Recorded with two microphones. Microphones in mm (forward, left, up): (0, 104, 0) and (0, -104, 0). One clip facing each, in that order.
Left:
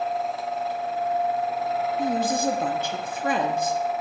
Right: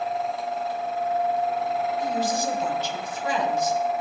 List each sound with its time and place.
2.0 s a woman speaking: 55° left (ahead or behind), 0.8 m